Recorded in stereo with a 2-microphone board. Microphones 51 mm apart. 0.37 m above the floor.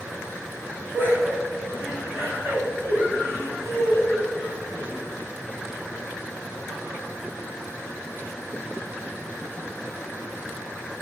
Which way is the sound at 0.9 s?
40° right (ahead or behind).